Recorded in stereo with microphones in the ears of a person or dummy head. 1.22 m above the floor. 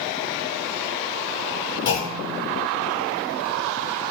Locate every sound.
1.9 s a clunk: 50° left (ahead or behind), 1.9 m